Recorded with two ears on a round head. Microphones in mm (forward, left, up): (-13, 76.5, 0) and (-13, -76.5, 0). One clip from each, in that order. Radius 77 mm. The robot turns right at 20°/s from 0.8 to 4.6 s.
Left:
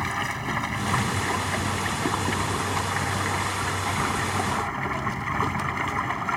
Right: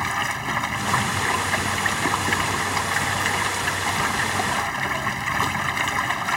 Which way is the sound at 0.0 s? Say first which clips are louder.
Right 4 dB; 145° right.